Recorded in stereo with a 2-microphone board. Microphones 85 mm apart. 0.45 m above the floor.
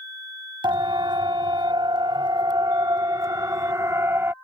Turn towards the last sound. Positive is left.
turn(degrees=-25)  # may be behind; listen again after turning